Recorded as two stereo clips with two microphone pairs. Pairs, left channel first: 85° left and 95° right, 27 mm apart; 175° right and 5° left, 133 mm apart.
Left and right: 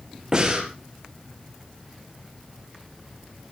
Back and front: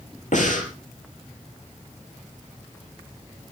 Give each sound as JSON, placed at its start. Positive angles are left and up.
{"t": 0.3, "sound": "breathing", "azimuth_deg": -155, "distance_m": 4.5}